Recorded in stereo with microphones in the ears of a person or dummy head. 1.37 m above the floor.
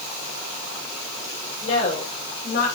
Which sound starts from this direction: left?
A woman speaking, at 1.6 s.